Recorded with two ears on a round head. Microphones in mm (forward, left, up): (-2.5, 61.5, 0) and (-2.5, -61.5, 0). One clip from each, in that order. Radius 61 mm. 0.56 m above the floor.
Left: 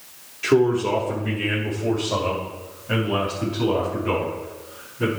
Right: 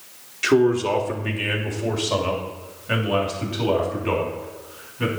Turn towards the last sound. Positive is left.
turn(degrees=-55)  # may be behind; listen again after turning